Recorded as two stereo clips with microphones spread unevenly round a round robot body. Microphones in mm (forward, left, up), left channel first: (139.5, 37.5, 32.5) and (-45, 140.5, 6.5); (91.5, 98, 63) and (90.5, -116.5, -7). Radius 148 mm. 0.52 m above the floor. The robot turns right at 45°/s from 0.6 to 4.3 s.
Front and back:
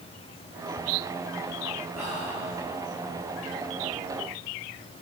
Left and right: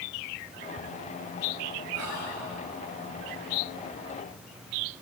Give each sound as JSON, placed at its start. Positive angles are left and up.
{"t": 1.9, "sound": "whispering", "azimuth_deg": -110, "distance_m": 8.5}